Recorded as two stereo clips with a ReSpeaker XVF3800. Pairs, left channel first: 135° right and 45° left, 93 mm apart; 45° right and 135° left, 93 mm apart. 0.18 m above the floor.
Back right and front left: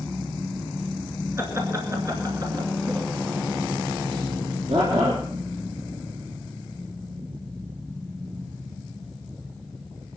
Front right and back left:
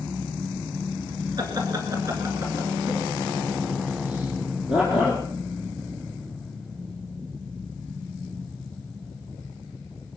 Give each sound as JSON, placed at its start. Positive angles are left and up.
{"t": 1.4, "sound": "laughter", "azimuth_deg": 100, "distance_m": 2.5}